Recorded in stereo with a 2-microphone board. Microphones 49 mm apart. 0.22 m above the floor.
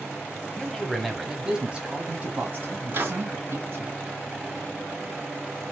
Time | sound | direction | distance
0.6 | a man speaking | 15° left (ahead or behind) | 1.0 m
2.9 | a microwave | 45° right (ahead or behind) | 1.7 m